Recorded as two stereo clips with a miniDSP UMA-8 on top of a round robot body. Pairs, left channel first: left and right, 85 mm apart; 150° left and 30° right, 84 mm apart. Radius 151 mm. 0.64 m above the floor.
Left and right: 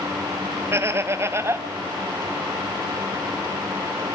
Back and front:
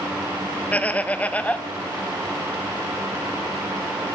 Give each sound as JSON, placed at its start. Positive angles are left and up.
{"t": 0.7, "sound": "laughter", "azimuth_deg": -140, "distance_m": 1.5}